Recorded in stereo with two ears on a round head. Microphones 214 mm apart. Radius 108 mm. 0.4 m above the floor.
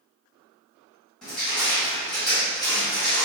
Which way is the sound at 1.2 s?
5° left (ahead or behind).